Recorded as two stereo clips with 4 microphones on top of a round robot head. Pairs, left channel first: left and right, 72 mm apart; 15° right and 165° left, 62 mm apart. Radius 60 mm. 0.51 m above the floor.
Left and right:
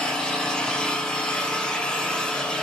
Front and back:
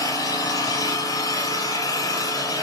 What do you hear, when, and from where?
0.0 s an engine running: 5° left, 5.5 m